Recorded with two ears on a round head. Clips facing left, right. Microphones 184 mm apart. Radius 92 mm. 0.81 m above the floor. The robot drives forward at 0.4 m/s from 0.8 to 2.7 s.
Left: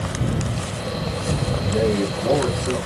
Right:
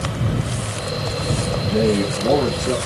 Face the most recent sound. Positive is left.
turn(degrees=-40)  # may be behind; listen again after turning